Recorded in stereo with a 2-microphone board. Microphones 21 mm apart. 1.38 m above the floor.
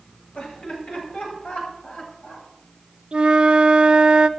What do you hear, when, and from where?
0.3 s laughter: 75° left (ahead or behind), 9 m; by 2.5 s 80° left, 10.5 m
3.1 s a flute: 50° right (ahead or behind), 0.9 m